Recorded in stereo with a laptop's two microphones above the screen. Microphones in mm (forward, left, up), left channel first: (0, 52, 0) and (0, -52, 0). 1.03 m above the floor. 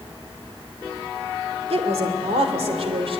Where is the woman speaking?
85° right, 2.5 m; by 3.2 s 65° right (ahead or behind), 3.5 m.